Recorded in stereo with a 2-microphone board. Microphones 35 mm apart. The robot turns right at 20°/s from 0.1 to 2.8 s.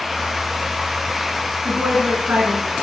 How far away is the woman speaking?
About 2.5 m.